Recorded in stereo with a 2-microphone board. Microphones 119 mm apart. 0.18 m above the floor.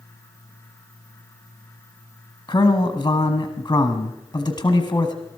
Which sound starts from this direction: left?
A man speaking, at 2.5 s.